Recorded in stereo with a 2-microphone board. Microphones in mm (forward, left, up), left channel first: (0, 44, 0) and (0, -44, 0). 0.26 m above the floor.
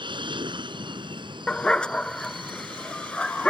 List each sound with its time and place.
0.0 s an aircraft: 65° right (ahead or behind)
1.5 s a dog barking: 10° left (ahead or behind)